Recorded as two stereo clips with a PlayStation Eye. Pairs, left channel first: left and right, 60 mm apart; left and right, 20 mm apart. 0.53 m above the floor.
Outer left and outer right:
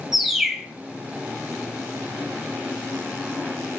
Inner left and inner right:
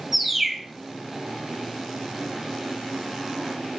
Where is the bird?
5° right (ahead or behind), 0.7 m.